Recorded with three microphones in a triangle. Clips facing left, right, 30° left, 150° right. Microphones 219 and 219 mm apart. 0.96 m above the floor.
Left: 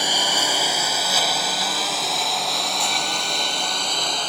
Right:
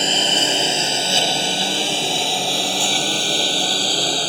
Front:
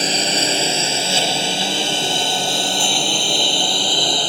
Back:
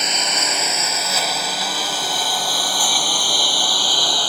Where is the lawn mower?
25° right; by 4.3 s 35° right.